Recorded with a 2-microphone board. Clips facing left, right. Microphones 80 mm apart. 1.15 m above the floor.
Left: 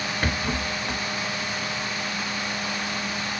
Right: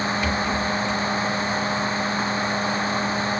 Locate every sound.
0.2 s a rattle: 50° left (ahead or behind), 0.7 m